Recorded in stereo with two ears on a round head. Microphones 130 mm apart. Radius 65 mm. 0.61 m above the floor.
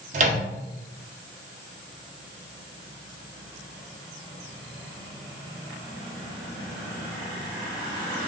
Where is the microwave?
55° right (ahead or behind), 0.7 m.